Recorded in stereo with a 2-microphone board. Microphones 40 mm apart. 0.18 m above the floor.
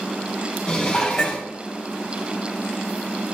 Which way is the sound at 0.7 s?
15° left (ahead or behind).